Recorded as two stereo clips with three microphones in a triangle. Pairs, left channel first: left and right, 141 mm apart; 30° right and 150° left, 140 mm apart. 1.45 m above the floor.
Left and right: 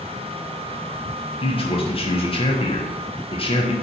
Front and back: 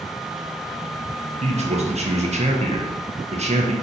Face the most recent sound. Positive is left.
turn(degrees=130)